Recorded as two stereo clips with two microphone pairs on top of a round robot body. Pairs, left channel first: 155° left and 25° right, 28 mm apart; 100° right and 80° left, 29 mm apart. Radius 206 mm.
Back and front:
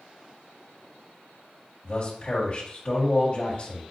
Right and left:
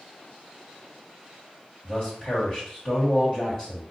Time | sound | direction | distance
1.8 | a man speaking | 155° right | 1.7 m